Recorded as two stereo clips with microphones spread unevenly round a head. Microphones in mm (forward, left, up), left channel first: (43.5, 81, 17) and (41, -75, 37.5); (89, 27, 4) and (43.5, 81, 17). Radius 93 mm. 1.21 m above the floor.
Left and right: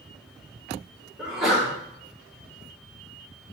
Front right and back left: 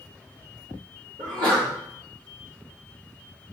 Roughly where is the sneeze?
Behind.